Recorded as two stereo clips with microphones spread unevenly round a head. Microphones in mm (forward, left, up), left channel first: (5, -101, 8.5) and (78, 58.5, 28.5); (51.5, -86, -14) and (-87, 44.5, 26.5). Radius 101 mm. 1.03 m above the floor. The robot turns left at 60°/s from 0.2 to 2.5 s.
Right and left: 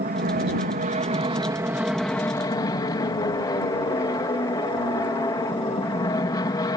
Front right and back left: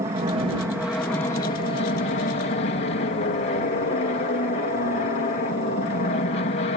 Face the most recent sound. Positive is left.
turn(degrees=-55)